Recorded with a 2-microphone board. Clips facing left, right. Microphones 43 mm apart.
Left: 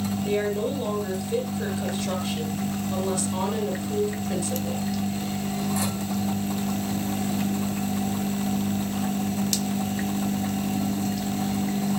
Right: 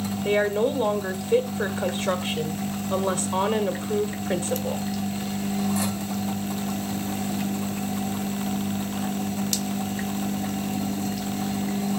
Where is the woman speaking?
45° right (ahead or behind), 1.7 m.